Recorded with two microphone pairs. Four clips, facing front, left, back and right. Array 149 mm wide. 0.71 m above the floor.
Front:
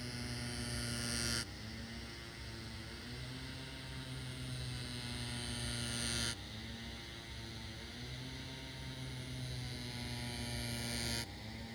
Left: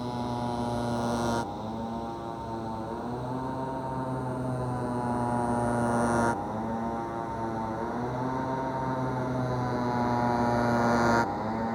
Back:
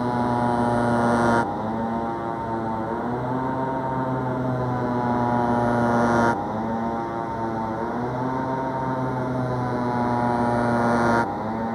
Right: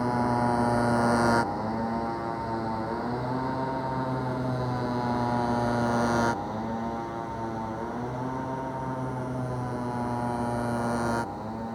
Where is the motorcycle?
160° right; by 11.7 s 165° left.